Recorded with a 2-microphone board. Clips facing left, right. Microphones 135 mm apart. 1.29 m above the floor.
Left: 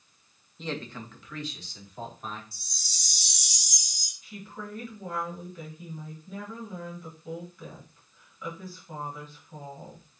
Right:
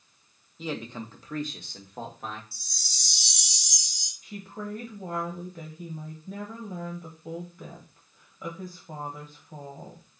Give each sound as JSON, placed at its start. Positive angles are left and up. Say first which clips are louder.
{"t": 0.6, "sound": "a man speaking", "louder": "right 2 dB", "side_deg": 0, "distance_m": 0.9}
{"t": 2.5, "sound": "a chime", "louder": "right 1 dB", "side_deg": -65, "distance_m": 1.5}
{"t": 4.2, "sound": "a woman speaking", "louder": "right 4 dB", "side_deg": -45, "distance_m": 1.2}